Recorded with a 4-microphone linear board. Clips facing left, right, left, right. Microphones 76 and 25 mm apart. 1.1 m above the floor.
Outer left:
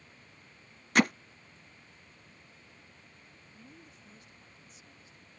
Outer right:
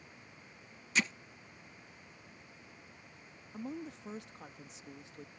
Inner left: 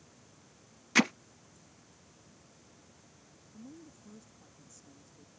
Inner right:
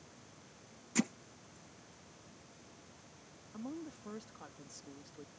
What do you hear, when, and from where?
0.9 s hammering: 55° left (ahead or behind)
3.5 s a woman speaking: 75° right (ahead or behind)